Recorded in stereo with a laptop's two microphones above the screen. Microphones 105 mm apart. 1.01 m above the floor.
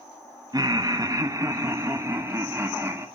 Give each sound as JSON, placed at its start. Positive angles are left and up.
{"t": 0.5, "sound": "laughter", "side_deg": -40, "distance_m": 0.8}